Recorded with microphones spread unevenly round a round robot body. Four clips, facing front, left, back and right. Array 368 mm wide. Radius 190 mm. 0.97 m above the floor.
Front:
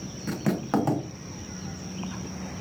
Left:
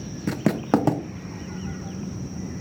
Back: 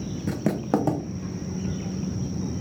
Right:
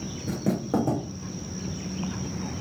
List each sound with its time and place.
0.3 s writing: 85° left, 0.6 m